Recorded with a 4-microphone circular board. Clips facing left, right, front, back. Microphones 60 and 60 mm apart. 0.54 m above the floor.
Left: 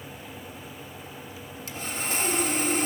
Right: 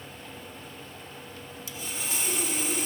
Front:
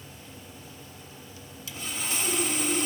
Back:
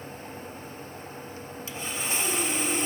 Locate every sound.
1.7 s sawing: 120° left, 0.8 m